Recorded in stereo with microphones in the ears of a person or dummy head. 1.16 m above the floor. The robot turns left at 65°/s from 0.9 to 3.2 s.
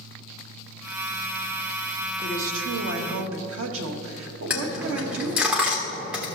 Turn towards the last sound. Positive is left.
turn(degrees=-10)  # may be behind; listen again after turning